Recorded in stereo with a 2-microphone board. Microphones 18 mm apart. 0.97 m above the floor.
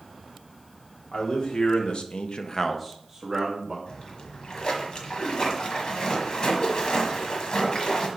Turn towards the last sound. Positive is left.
turn(degrees=50)  # may be behind; listen again after turning